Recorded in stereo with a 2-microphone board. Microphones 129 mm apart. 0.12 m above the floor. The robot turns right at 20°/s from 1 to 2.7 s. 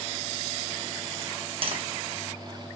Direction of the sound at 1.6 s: 45° right (ahead or behind).